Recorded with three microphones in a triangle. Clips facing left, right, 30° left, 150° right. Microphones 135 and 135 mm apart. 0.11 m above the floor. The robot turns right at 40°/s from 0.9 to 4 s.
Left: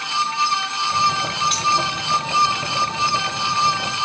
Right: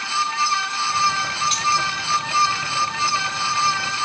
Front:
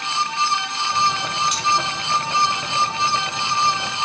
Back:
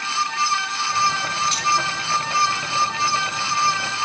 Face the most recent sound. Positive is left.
turn(degrees=55)